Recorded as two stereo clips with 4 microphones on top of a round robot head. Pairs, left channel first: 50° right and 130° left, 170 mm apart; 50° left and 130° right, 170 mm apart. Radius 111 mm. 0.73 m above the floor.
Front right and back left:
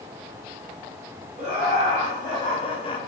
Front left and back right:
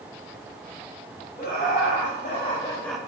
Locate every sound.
1.4 s laughter: 15° left, 1.8 m; by 3.0 s 50° right, 0.5 m